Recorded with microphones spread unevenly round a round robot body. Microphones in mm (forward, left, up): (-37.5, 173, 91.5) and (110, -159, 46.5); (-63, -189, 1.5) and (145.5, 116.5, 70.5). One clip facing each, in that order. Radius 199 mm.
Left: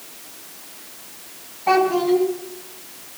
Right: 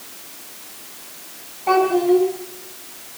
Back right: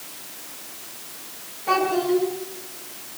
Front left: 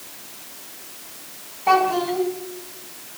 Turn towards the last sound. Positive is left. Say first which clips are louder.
# right 2 dB, back right 1 dB
turn(degrees=55)